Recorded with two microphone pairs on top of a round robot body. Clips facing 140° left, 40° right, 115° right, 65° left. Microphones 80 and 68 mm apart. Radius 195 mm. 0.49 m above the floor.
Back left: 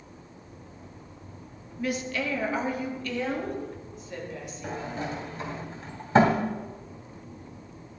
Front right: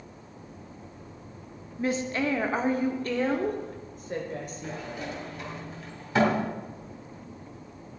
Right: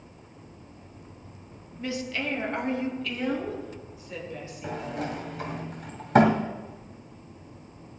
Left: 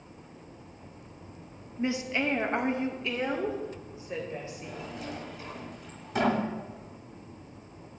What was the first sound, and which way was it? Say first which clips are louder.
A woman speaking: front right 2 dB, left 2 dB; 10° left.